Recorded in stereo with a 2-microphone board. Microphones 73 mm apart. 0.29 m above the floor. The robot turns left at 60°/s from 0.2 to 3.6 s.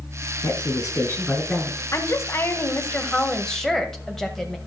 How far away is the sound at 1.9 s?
About 1.4 m.